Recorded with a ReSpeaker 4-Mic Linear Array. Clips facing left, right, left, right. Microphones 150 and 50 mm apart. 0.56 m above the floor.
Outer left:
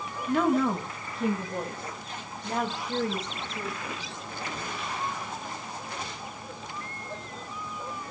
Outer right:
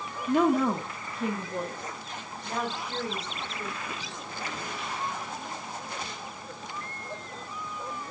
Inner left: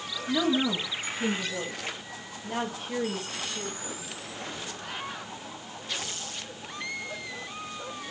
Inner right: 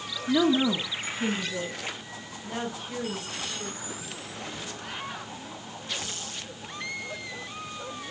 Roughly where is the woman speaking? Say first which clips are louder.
Outer right 1 dB, inner right 3 dB; right.